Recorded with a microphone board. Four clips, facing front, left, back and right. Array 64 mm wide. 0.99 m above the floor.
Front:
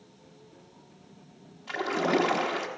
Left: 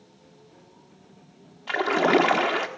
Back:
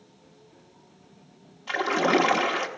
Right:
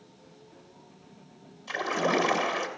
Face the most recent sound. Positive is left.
turn(degrees=110)